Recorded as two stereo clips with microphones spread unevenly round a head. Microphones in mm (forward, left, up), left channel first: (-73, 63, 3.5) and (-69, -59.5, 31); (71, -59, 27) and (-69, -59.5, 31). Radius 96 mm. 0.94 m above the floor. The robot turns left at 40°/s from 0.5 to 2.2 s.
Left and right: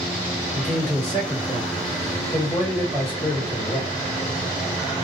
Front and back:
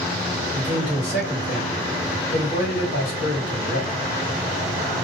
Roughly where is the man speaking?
Left.